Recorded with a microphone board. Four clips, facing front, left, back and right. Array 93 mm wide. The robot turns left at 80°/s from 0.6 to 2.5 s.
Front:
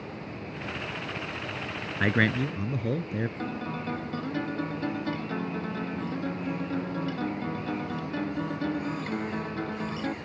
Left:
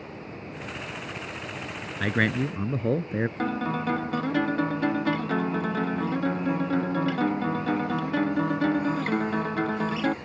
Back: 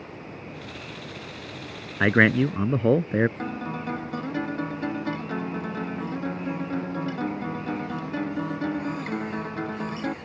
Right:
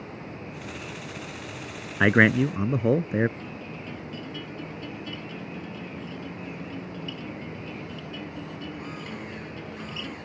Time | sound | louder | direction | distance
2.0 | a man speaking | right 6 dB, back 6 dB | 120° right | ?
3.4 | a guitar | left 11 dB, back 2 dB | 100° left | ?